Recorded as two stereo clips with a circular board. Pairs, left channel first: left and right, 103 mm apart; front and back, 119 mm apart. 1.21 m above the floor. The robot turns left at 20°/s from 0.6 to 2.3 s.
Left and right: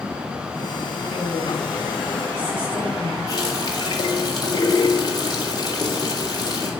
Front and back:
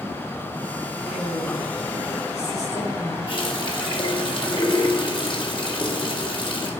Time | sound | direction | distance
1.1 | a woman speaking | 20° left | 6 m
3.3 | a running tap | 40° left | 2.5 m